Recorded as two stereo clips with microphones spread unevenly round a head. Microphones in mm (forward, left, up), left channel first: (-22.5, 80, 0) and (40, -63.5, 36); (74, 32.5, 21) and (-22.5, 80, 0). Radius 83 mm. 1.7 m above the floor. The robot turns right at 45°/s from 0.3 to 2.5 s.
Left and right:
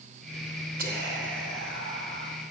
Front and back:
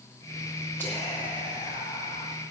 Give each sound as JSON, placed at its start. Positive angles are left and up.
{"t": 0.8, "sound": "whispering", "azimuth_deg": -105, "distance_m": 2.0}